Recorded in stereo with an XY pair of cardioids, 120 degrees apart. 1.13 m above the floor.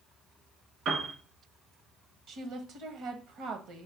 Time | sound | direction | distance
0.8 | a piano | 65° right | 1.9 m
2.3 | a woman speaking | 65° right | 1.2 m